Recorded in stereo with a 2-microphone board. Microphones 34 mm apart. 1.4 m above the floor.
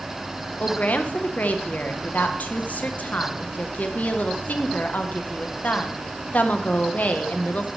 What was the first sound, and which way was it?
A woman speaking, 60° left (ahead or behind).